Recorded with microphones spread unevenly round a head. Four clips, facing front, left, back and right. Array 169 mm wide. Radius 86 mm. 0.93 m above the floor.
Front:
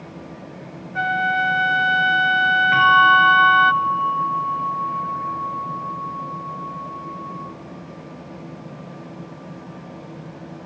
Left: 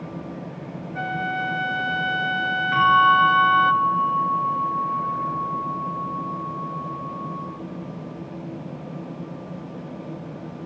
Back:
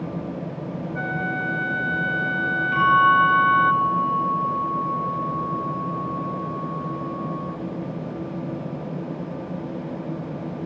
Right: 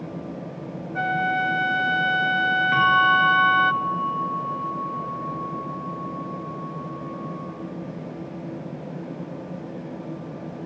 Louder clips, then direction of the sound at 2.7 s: Left 4 dB, front 2 dB; 85° right.